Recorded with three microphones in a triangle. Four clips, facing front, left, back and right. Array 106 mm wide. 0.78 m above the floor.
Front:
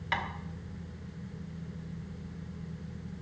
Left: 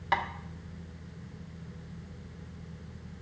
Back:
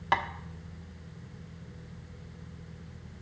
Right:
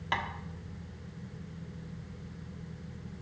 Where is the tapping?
170° left, 0.8 m.